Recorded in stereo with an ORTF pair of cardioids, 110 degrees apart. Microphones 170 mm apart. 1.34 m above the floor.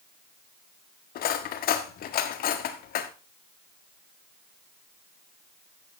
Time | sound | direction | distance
1.1 | cutlery clinking | 65° left | 1.8 m